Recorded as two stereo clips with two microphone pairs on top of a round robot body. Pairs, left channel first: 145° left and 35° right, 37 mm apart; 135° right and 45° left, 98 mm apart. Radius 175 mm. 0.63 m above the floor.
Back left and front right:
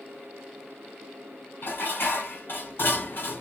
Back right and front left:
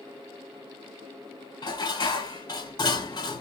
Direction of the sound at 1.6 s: Straight behind.